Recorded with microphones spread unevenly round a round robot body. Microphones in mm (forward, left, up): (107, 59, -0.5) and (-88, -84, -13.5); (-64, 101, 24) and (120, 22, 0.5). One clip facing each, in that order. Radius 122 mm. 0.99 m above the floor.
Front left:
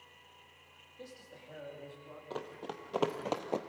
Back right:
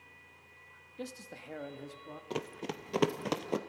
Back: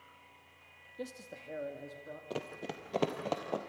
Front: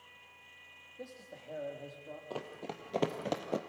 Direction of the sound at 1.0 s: 145° right.